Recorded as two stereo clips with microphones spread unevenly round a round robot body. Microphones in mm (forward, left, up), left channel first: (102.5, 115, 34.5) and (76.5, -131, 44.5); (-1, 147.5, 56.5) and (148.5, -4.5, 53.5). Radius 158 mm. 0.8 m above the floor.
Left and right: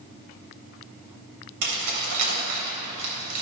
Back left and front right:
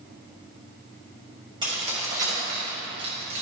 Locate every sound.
1.6 s keys jangling: 120° right, 3 m; by 3.4 s 85° right, 3 m